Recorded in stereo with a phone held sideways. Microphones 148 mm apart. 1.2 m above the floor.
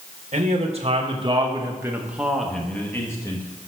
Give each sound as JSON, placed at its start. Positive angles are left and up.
{"t": 0.3, "sound": "a man speaking", "side_deg": -50, "distance_m": 1.5}